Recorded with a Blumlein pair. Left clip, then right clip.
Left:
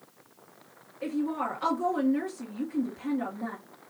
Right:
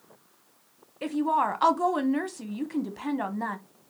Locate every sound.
1.0 s a woman speaking: 60° right, 0.9 m